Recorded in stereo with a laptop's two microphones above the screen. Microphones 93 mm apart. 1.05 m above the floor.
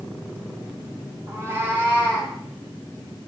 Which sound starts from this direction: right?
A cat meowing, at 1.3 s.